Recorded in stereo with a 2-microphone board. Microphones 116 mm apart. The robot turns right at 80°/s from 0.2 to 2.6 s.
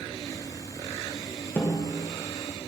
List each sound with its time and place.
1.6 s a snare drum: 20° left (ahead or behind), 0.8 m; by 1.9 s 5° left (ahead or behind), 0.8 m